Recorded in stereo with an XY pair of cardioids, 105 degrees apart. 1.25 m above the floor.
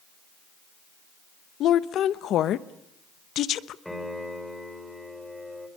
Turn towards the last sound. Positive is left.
turn(degrees=5)